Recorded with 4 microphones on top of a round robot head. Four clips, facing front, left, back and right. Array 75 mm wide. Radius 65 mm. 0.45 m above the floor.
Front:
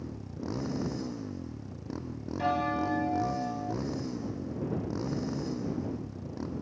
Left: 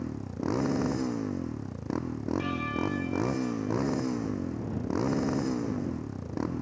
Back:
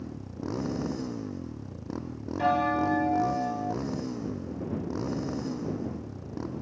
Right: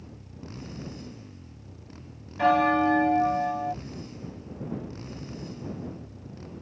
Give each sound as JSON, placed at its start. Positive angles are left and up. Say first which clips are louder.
{"t": 0.0, "sound": "a motorcycle", "louder": "left 12 dB, back 2 dB", "azimuth_deg": 100}
{"t": 2.4, "sound": "a bell", "louder": "right 15 dB, back 4 dB", "azimuth_deg": -105}